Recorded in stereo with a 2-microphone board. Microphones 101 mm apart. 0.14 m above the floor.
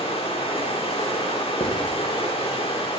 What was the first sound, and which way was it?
Running water, 75° left (ahead or behind).